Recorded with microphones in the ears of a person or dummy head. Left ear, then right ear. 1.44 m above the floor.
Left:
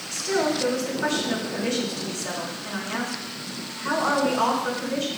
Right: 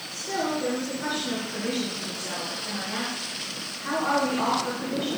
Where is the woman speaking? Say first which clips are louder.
Left 4 dB; 30° left (ahead or behind), 4 m.